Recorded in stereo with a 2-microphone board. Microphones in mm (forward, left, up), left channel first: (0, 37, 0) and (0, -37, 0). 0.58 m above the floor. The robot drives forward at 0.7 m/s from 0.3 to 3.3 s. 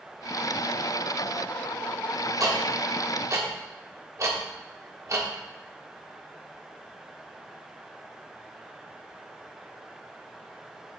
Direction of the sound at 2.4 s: 50° right (ahead or behind).